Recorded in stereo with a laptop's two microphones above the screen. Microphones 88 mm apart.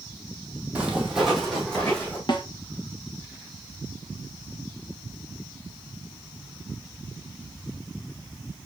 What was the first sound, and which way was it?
Footsteps, 15° right (ahead or behind).